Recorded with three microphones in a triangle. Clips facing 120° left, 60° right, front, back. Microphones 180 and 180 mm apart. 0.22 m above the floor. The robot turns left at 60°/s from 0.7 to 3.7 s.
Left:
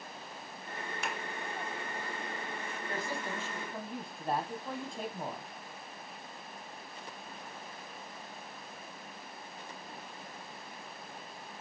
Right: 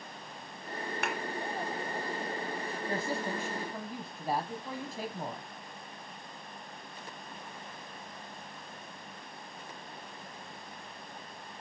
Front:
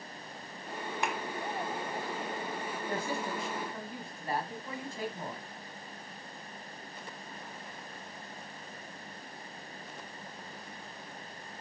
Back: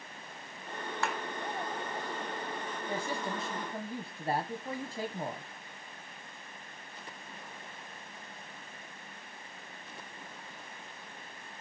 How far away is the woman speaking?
About 1.3 m.